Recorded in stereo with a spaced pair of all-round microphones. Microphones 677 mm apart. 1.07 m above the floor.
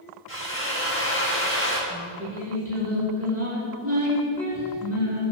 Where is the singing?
20° right (ahead or behind), 10 m.